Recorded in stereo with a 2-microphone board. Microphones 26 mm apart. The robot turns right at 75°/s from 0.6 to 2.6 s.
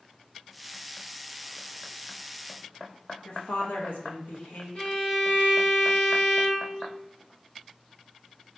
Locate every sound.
3.2 s a woman speaking: 80° left, 1.0 m
4.8 s a violin: 55° left (ahead or behind), 1.7 m